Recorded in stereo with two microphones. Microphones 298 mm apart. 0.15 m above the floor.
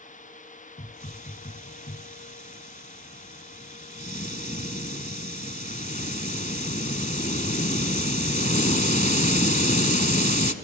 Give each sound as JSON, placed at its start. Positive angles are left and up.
{"t": 0.8, "sound": "a hiss", "side_deg": 25, "distance_m": 0.9}